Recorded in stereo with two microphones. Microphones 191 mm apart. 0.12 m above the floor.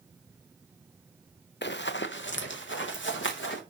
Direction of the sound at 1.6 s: 70° left (ahead or behind).